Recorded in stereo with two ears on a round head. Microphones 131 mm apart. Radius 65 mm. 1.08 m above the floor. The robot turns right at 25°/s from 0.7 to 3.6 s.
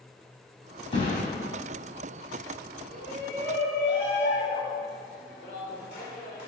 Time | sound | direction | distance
0.9 | a thud | 35° left (ahead or behind) | 4 m
2.9 | a shout | 80° left | 4.5 m